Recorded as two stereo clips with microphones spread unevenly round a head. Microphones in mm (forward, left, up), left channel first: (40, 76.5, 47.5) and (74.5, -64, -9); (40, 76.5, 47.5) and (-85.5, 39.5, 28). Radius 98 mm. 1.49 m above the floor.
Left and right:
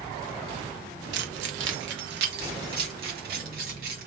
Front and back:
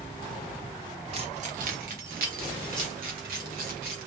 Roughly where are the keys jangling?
Right.